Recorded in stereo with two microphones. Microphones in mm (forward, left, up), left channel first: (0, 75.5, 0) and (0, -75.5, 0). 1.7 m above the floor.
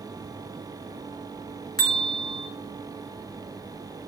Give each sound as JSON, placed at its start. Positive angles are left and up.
{"t": 1.8, "sound": "a bell", "side_deg": 25, "distance_m": 4.0}